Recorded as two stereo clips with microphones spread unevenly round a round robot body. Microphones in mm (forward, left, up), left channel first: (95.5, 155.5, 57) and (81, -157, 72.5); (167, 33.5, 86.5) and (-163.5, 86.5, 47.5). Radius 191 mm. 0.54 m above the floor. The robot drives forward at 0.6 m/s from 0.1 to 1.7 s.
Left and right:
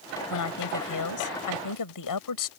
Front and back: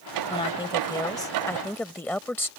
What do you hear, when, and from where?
0.3 s a woman speaking: 65° left; by 2.5 s 75° left